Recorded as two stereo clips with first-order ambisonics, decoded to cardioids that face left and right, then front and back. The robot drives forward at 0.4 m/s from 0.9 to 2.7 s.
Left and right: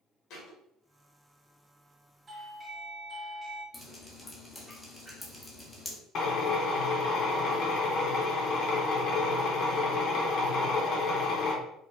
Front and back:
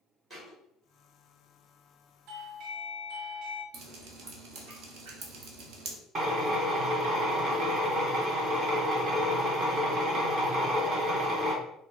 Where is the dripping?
170° left, 0.9 m.